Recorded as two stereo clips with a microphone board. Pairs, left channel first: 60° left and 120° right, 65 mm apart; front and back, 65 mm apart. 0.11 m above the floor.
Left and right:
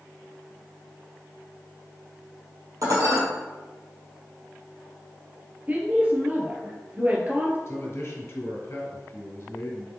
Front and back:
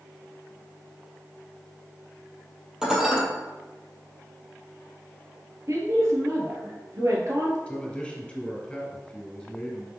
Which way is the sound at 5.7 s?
175° right.